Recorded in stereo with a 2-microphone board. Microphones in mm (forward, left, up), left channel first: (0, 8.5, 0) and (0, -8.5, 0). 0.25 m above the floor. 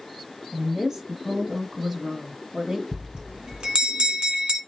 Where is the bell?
60° right (ahead or behind), 2 m.